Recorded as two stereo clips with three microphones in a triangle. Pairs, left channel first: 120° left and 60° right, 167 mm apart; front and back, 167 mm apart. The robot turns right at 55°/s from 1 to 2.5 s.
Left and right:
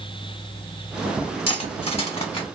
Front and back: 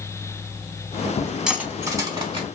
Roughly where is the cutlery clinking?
Left.